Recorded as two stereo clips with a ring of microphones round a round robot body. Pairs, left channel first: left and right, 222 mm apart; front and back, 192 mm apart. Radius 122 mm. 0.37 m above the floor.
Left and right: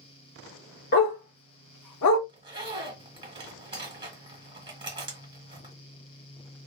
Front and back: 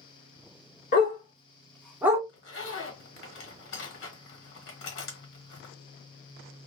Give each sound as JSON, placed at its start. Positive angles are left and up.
{"t": 0.9, "sound": "a dog barking", "azimuth_deg": 45, "distance_m": 1.3}
{"t": 2.3, "sound": "a zipper", "azimuth_deg": -20, "distance_m": 1.3}